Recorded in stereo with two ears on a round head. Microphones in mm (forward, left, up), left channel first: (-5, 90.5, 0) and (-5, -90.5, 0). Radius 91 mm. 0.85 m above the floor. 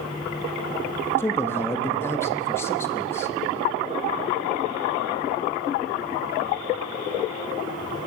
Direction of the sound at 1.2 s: 15° left (ahead or behind).